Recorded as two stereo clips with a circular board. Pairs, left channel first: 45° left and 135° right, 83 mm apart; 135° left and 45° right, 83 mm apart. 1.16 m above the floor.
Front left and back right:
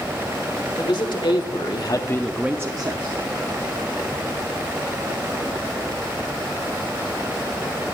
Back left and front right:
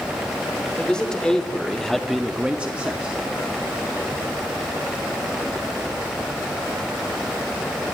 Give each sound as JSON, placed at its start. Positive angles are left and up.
{"t": 0.8, "sound": "a man speaking", "azimuth_deg": 55, "distance_m": 1.9}